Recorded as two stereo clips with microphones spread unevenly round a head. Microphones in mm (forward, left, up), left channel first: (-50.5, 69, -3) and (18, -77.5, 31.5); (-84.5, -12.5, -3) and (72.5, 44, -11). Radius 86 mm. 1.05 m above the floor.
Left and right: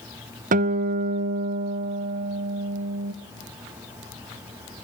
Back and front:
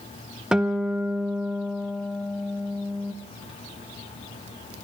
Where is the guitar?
60° right, 0.5 m.